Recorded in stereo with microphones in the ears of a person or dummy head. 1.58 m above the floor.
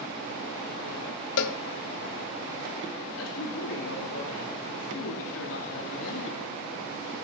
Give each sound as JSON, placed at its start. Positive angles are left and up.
{"t": 1.4, "sound": "a cowbell", "side_deg": 70, "distance_m": 0.8}
{"t": 3.2, "sound": "a man speaking", "side_deg": 80, "distance_m": 2.5}